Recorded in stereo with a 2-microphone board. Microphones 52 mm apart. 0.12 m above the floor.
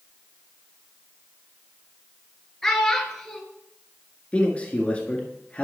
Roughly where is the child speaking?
Centre.